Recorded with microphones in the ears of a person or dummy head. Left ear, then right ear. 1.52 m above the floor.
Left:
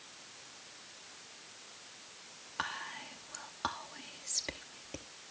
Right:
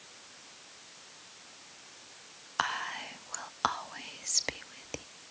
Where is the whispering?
30° right (ahead or behind), 0.6 m.